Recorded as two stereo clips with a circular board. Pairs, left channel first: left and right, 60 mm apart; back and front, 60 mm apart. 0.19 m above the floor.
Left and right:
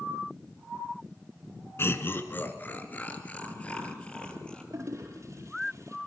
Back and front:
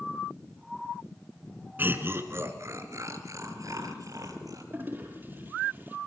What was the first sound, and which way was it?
Laughter, 55° left.